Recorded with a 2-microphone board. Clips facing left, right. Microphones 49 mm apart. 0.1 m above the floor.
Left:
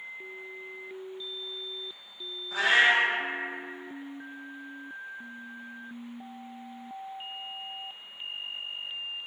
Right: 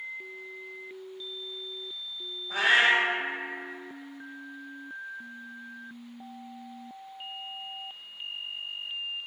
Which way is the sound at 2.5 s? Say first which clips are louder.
Even; 50° right (ahead or behind).